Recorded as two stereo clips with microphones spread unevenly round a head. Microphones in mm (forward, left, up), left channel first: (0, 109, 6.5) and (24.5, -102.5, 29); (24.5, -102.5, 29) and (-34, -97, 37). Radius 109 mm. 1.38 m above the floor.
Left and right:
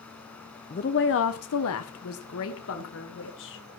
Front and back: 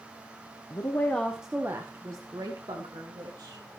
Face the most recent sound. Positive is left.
turn(degrees=135)